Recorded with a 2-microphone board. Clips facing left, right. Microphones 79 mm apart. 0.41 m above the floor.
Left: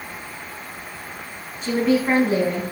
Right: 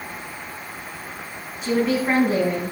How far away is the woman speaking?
About 3 m.